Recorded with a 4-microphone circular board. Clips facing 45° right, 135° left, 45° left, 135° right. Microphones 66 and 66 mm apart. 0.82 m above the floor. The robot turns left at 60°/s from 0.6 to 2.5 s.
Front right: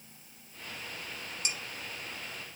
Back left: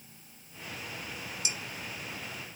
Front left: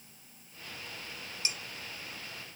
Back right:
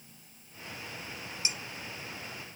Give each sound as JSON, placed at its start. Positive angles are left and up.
{"t": 1.4, "sound": "dishes clattering", "azimuth_deg": -65, "distance_m": 1.6}